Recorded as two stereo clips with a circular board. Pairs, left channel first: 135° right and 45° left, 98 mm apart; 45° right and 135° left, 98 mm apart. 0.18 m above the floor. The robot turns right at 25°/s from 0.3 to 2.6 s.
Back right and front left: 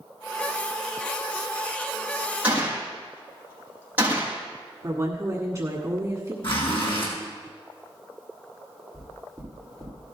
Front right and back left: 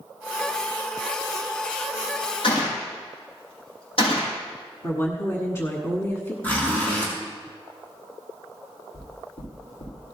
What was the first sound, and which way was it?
A gunshot, 30° right.